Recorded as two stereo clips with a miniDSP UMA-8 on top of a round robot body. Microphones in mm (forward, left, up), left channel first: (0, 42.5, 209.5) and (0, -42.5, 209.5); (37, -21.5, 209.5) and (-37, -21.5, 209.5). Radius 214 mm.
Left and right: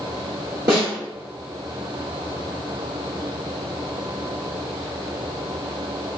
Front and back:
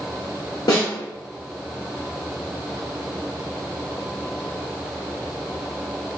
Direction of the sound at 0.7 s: 35° right.